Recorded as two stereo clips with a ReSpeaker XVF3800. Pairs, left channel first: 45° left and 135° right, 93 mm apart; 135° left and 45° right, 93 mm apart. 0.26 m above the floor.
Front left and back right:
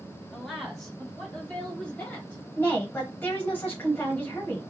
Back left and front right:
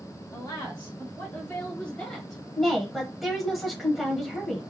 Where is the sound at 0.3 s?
135° left, 1.8 m; by 2.4 s 50° left, 1.5 m.